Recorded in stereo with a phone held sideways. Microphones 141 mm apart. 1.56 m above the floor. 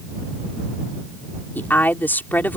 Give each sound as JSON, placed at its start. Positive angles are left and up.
{"t": 1.6, "sound": "a woman speaking", "side_deg": 15}